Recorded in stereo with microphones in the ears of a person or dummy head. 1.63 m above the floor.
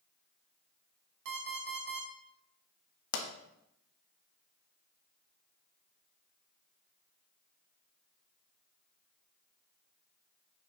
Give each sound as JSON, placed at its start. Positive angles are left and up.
{"t": 1.2, "sound": "an alarm clock", "side_deg": -65, "distance_m": 3.0}
{"t": 3.1, "sound": "a pop", "side_deg": 80, "distance_m": 1.6}